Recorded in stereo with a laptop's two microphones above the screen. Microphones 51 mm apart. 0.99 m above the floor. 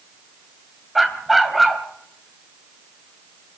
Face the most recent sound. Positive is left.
turn(degrees=0)  # may be behind; listen again after turning